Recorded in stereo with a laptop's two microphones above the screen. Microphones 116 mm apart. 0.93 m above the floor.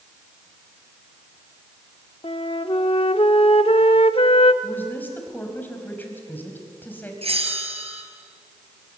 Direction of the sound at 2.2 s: 55° left (ahead or behind).